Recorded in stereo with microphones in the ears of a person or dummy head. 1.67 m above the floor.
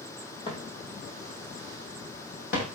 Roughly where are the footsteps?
Left.